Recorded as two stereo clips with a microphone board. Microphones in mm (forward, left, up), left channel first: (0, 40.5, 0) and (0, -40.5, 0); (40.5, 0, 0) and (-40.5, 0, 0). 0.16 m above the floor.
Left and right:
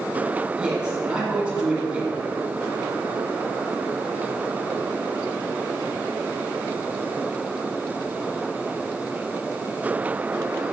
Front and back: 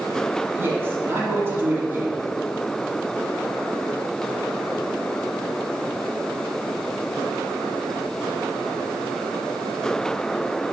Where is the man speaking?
155° right, 1.7 m.